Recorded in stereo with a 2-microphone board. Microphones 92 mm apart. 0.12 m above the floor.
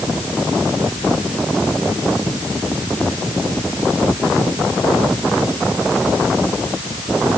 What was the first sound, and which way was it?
Only background noise.